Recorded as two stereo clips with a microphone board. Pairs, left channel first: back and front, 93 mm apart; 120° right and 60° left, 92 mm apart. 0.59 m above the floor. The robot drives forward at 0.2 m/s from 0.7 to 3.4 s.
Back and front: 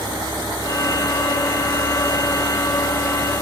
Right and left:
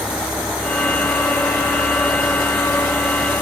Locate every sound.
Only background noise.